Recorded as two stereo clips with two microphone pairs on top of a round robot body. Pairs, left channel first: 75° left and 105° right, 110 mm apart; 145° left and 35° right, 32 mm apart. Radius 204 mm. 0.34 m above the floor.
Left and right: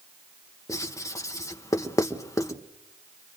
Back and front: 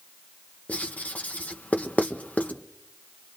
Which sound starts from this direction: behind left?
Writing, at 0.7 s.